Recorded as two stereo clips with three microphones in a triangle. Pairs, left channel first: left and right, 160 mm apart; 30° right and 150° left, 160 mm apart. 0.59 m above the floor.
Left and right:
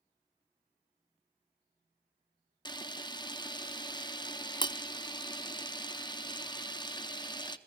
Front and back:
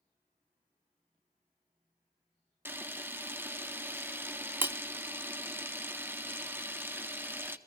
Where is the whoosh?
No whoosh in this recording.